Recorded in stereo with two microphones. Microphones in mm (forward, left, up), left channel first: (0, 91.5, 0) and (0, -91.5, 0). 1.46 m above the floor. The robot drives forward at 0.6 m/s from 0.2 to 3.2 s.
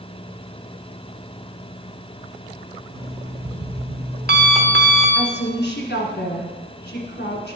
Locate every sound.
2.9 s an alarm clock: 60° right (ahead or behind), 1.2 m
5.2 s a woman speaking: 65° left (ahead or behind), 1.4 m